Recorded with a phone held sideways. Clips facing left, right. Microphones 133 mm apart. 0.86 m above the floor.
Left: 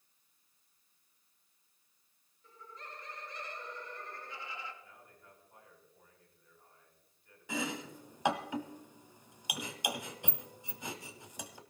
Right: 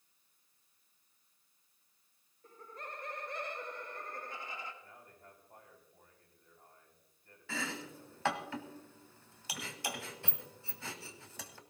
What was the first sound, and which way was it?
Laughter, 50° right (ahead or behind).